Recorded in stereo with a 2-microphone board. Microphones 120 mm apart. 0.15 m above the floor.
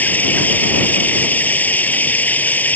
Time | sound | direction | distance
0.0 | running water | 15° left (ahead or behind) | ?